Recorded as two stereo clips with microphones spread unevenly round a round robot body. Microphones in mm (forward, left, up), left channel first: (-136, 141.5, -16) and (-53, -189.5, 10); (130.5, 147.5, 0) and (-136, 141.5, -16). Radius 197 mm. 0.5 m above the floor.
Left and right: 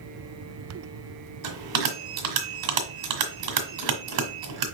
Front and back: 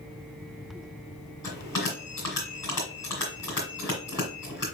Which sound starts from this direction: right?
A bell, at 1.4 s.